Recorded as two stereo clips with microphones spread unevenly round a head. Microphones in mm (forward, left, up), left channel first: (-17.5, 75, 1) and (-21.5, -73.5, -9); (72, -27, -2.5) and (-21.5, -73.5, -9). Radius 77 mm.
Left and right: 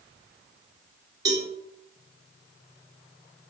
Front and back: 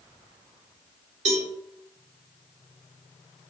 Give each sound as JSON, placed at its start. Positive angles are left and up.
{"t": 1.2, "sound": "a cowbell", "azimuth_deg": -160, "distance_m": 1.1}